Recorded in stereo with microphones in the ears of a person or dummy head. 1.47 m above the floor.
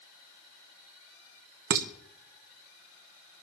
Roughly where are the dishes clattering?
Right.